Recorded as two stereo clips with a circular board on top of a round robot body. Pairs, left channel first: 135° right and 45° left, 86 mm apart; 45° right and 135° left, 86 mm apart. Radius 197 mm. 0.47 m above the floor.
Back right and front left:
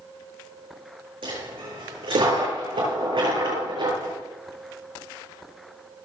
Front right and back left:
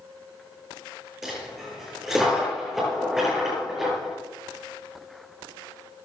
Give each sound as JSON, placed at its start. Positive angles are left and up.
{"t": 1.2, "sound": "a dropped coin", "azimuth_deg": 50, "distance_m": 9.0}